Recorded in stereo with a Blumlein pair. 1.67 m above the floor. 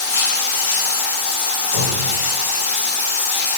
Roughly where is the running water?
Ahead left.